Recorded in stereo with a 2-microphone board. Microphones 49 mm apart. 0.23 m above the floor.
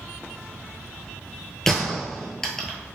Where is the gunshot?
5° left (ahead or behind), 0.7 m.